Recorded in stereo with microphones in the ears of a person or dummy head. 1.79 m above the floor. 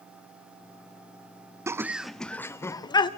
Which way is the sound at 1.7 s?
15° right (ahead or behind).